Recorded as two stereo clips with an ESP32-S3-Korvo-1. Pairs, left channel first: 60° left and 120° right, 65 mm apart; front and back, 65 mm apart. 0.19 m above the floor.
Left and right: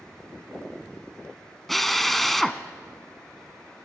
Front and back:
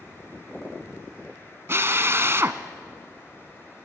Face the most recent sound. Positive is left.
turn(degrees=150)